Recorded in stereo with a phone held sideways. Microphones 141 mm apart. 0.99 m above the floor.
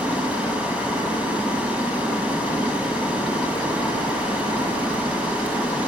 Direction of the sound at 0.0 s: 10° right (ahead or behind).